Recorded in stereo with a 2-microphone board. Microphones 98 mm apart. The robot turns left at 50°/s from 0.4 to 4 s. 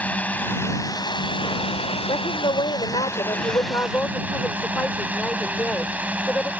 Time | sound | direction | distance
0.0 | a drone | 165° left | ?
2.1 | a woman speaking | 120° left | ?